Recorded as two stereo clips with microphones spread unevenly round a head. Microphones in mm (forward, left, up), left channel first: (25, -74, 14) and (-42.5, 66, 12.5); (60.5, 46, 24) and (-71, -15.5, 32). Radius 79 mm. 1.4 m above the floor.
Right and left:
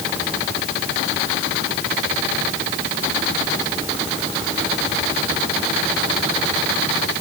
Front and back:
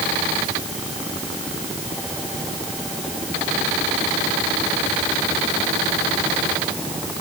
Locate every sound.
Only background noise.